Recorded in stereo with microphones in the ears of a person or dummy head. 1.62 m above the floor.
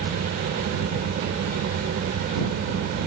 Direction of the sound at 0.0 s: 50° right (ahead or behind).